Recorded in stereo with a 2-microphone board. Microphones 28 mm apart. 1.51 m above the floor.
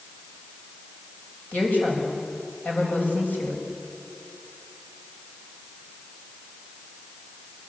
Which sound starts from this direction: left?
A woman speaking, at 1.5 s.